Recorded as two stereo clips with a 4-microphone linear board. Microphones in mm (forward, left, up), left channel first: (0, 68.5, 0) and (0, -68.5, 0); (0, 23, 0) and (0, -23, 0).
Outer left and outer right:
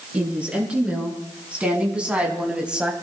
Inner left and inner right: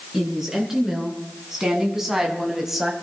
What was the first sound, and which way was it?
A woman speaking, 10° right (ahead or behind).